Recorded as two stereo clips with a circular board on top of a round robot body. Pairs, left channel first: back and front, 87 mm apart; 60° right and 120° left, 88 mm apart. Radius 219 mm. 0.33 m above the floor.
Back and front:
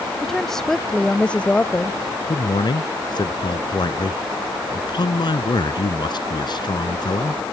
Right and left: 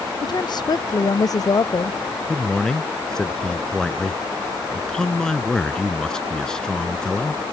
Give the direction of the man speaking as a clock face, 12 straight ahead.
5 o'clock.